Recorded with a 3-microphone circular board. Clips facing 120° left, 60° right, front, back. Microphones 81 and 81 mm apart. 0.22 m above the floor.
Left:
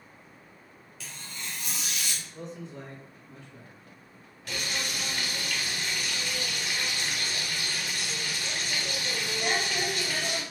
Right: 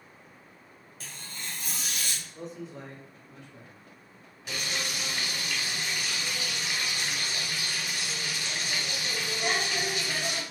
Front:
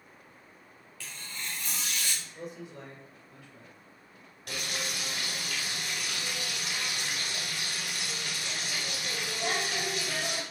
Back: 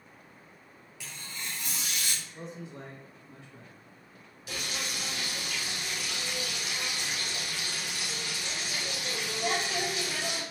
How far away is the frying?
About 1.3 m.